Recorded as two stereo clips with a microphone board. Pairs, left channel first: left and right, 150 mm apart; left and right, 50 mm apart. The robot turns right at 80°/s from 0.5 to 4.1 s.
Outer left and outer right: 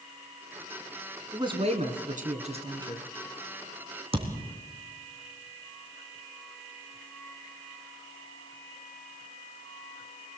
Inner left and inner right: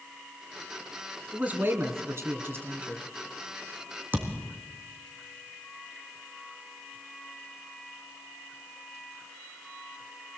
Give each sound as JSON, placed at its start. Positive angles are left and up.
{"t": 1.3, "sound": "a man speaking", "azimuth_deg": -155, "distance_m": 2.0}
{"t": 4.1, "sound": "a thud", "side_deg": -40, "distance_m": 3.0}